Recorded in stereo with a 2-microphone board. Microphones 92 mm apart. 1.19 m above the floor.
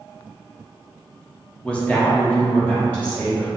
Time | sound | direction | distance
1.6 | a woman speaking | 10° left (ahead or behind) | 0.5 m